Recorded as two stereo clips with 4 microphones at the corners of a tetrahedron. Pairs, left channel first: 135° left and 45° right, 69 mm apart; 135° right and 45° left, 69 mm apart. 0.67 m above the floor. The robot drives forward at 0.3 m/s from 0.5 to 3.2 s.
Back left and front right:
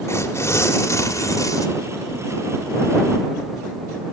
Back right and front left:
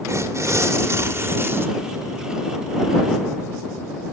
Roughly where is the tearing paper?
Left.